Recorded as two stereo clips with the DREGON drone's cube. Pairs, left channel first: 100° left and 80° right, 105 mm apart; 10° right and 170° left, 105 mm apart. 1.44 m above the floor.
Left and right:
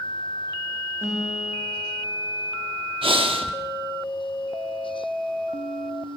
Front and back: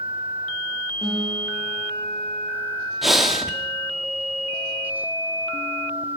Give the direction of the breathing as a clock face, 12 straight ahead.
3 o'clock.